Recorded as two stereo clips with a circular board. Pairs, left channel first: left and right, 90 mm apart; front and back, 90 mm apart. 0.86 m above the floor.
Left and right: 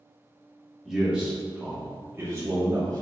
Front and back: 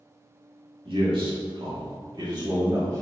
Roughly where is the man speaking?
Behind.